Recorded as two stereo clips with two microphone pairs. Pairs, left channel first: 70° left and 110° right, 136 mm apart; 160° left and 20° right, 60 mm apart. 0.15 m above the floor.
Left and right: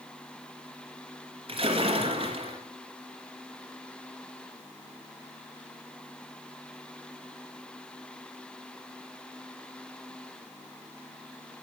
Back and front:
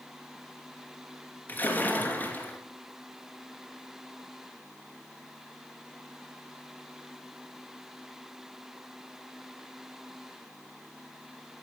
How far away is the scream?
No scream in this recording.